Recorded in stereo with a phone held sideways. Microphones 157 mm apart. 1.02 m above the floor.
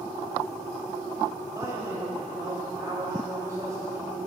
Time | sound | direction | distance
1.5 | a man speaking | 25° right (ahead or behind) | 5.5 m